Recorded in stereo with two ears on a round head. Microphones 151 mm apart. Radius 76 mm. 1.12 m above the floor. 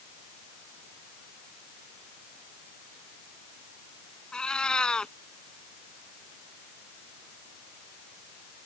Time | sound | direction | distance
4.3 | a cat meowing | 5° left (ahead or behind) | ?